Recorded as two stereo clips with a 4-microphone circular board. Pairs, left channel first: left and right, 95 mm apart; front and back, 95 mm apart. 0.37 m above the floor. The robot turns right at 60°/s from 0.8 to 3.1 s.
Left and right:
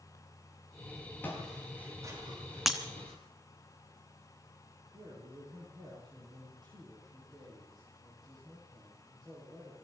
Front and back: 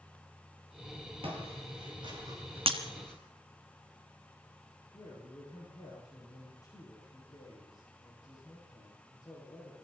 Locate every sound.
1.2 s footsteps: 160° left, 8 m; by 3.2 s 80° right, 7.5 m
2.7 s breaking glass: straight behind, 1.8 m; by 2.8 s 170° right, 1.8 m
4.9 s a man speaking: 50° right, 9 m